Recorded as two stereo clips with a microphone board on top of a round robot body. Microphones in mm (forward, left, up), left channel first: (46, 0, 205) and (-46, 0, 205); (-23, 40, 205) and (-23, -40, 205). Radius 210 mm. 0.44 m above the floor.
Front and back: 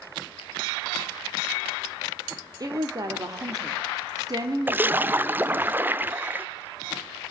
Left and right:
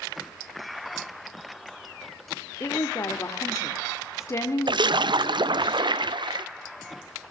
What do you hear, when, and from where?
2.6 s a woman speaking: 140° left, 2.0 m
4.7 s a splash: 110° right, 0.8 m